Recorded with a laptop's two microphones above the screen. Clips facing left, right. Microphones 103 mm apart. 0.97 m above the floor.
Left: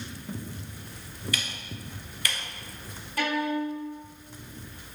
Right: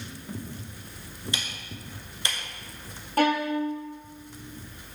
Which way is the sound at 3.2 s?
45° right (ahead or behind).